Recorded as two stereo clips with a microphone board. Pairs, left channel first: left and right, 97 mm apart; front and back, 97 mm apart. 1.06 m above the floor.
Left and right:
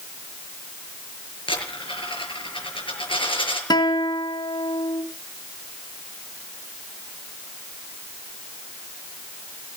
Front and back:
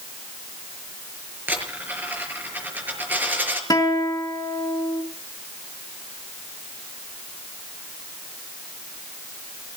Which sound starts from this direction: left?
A dropped coin, at 1.5 s.